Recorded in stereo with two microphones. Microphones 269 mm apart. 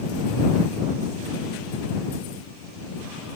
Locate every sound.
Only background noise.